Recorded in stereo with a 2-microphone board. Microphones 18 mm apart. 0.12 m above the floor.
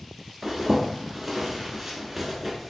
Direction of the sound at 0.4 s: Centre (ahead or behind).